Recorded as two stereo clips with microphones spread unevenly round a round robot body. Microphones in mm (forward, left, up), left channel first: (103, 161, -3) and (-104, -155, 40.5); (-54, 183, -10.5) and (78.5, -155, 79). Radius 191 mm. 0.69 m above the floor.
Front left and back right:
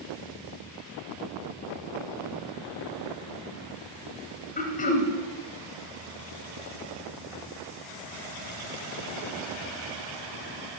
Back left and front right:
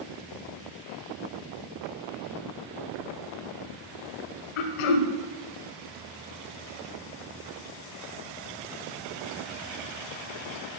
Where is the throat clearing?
130° left, 0.8 m.